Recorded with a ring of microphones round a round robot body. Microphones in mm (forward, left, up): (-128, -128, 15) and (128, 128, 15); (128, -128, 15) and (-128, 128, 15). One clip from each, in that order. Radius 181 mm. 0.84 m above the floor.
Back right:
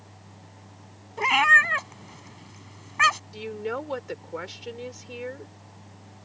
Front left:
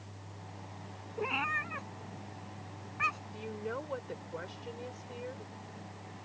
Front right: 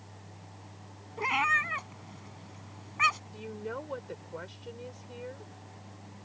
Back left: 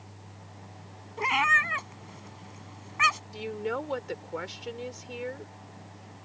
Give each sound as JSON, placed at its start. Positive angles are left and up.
{"t": 1.2, "sound": "a cat meowing", "azimuth_deg": -145}
{"t": 3.3, "sound": "a woman speaking", "azimuth_deg": 180}